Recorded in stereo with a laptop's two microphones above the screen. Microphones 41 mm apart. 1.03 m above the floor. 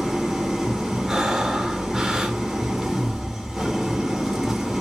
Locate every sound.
0.0 s an engine running: 10° right (ahead or behind), 1.5 m
1.1 s breathing: 15° right (ahead or behind), 1.3 m